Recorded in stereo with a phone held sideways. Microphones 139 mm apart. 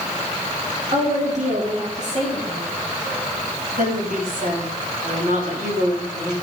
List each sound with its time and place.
0.9 s a woman speaking: 55° right (ahead or behind), 3 m
3.8 s a woman speaking: 75° right (ahead or behind), 4 m